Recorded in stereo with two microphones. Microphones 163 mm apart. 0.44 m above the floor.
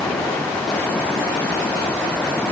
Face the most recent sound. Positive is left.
No sound to turn to.